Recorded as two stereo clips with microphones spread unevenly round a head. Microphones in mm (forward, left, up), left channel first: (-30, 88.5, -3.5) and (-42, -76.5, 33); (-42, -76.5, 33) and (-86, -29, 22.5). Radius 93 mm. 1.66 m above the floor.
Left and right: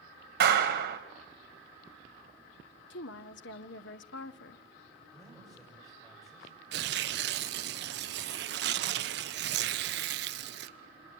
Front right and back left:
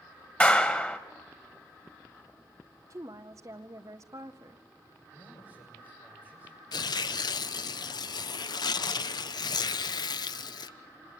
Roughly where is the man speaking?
Ahead.